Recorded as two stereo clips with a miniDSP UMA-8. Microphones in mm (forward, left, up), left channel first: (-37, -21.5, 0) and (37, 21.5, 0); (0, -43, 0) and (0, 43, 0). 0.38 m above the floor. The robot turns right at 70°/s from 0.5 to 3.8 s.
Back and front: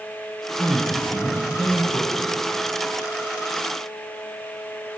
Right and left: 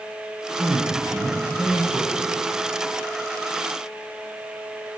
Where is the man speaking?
100° left, 2.5 m; by 2.3 s 135° right, 2.5 m.